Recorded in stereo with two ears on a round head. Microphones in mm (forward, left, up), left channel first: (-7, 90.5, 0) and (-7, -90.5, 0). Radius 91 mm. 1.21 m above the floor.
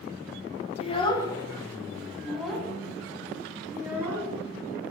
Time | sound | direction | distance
0.8 | a child speaking | 30° left (ahead or behind) | 0.9 m